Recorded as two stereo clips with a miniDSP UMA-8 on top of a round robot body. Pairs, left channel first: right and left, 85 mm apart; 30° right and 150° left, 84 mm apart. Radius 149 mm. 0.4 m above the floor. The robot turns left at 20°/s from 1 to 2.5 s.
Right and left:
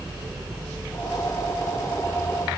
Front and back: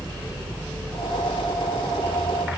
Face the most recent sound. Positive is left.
No sound to turn to.